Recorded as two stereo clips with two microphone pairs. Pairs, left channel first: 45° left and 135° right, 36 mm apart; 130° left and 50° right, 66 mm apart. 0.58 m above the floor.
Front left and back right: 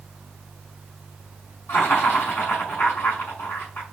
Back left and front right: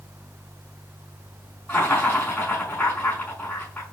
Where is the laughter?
60° left, 4.5 m.